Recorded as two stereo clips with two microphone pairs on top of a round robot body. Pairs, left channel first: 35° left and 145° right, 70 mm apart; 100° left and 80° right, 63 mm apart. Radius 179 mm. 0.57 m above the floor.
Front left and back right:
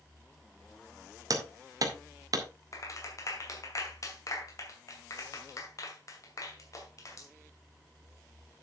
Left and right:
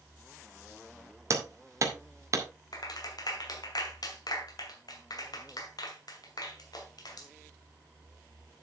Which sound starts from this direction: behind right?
Hammering, at 1.3 s.